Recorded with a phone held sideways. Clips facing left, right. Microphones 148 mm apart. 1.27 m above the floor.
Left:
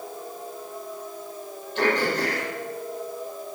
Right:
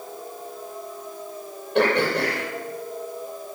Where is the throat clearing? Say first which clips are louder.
Right 3 dB; 65° right (ahead or behind), 6 m.